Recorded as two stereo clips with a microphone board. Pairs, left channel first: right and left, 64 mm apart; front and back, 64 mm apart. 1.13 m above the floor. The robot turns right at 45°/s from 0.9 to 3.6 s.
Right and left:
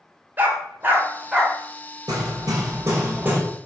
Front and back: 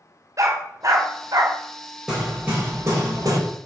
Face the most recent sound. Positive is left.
turn(degrees=165)